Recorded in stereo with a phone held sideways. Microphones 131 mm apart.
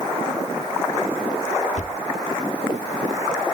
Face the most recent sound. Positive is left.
turn(degrees=60)  # may be behind; listen again after turning